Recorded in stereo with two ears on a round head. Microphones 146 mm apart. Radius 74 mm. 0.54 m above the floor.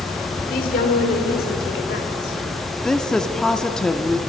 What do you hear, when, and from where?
0.5 s a woman speaking: 50° left (ahead or behind), 1.6 m; by 2.4 s 70° left (ahead or behind), 2.5 m
2.8 s a woman speaking: 5° left (ahead or behind), 0.6 m